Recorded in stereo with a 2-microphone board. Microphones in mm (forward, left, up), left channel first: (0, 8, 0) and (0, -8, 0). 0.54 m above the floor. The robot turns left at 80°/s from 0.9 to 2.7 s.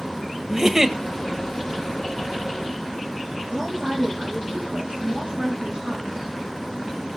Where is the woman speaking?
50° right (ahead or behind), 3.5 m.